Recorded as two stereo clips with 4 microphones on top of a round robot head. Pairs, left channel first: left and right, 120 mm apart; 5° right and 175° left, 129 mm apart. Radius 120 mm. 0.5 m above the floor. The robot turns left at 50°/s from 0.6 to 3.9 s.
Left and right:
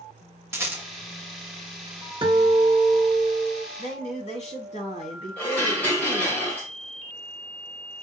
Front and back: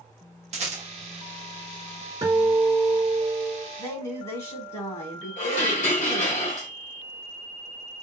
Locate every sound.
0.5 s a rattle: 160° right, 1.4 m; by 0.8 s 170° right, 1.4 m
2.2 s a guitar: 125° right, 1.8 m; by 3.7 s 165° left, 1.8 m
3.8 s a woman speaking: 60° left, 1.9 m; by 6.4 s 55° left, 1.9 m
5.4 s dishes clattering: 10° left, 2.0 m